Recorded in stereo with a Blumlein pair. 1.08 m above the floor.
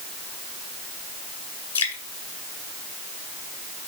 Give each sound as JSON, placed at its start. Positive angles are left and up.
{"t": 1.8, "sound": "dripping", "azimuth_deg": 70, "distance_m": 1.9}